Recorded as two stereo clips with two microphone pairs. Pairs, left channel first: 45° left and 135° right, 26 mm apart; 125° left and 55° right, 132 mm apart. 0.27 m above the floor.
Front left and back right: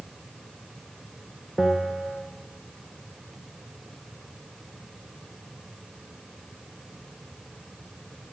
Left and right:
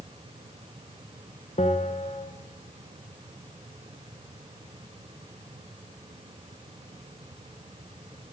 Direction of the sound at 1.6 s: 145° left.